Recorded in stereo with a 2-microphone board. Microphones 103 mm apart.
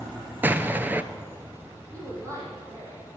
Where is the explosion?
20° right (ahead or behind), 0.6 m.